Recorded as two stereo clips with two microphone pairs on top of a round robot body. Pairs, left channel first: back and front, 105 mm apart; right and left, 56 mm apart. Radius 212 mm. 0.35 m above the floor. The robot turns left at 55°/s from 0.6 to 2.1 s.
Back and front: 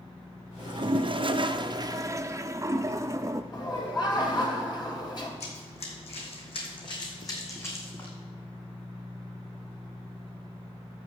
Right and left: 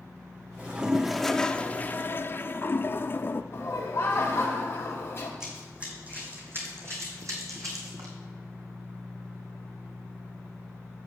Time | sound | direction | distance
0.6 | a toilet flushing | 30° left | 0.8 m
3.5 | laughter | 135° right | 3 m
5.4 | running footsteps | 165° left | 1.8 m